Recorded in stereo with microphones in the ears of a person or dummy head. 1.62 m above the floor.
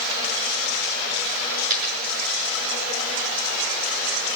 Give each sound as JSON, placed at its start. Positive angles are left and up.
{"t": 1.7, "sound": "a dropped coin", "side_deg": -50, "distance_m": 6.0}